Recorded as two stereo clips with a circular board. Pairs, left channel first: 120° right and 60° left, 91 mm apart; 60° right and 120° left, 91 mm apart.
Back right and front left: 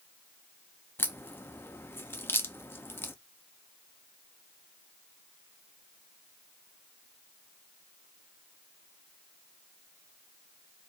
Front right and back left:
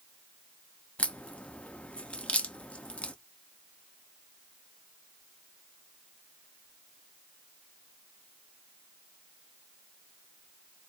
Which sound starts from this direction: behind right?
A crack, at 1.0 s.